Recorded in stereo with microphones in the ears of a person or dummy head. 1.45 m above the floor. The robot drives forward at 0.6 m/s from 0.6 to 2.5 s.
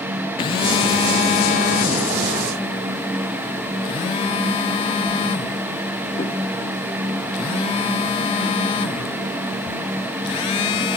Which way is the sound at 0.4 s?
30° left (ahead or behind).